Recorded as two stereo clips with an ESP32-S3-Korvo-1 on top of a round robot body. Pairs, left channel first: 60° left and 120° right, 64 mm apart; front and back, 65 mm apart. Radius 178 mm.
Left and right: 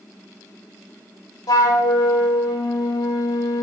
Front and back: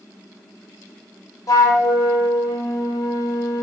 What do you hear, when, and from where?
1.5 s a flute: 40° left, 1.1 m